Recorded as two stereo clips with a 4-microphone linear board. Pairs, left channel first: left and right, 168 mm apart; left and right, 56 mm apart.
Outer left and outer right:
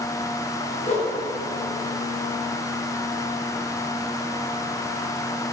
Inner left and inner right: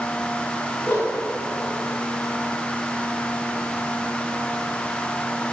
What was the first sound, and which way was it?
A whoosh, 40° left (ahead or behind).